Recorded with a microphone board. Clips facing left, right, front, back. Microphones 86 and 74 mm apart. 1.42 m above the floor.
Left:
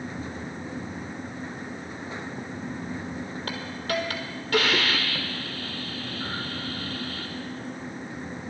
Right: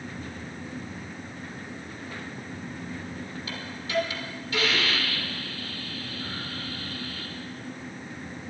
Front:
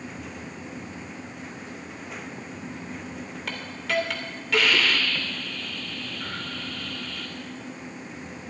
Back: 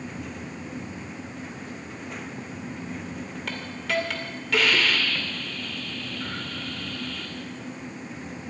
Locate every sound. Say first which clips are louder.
3.5 s a hiss: left 3 dB, even; 90° left, 1.7 m